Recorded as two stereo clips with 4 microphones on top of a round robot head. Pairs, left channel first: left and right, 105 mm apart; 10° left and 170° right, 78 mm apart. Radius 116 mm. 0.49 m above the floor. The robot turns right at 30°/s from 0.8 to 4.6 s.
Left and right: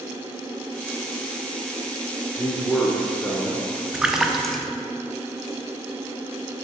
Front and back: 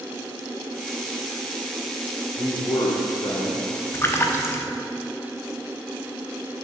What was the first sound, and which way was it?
A man speaking, 15° right.